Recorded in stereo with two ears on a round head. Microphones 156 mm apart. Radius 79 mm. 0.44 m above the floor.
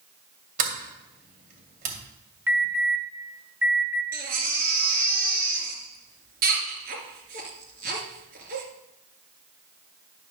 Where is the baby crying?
50° right (ahead or behind), 2.0 m.